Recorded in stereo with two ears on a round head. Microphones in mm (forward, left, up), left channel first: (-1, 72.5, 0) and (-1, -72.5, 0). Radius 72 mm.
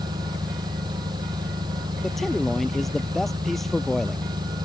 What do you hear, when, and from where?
0.0 s an engine running: 25° right (ahead or behind)
2.0 s a man speaking: centre (ahead or behind)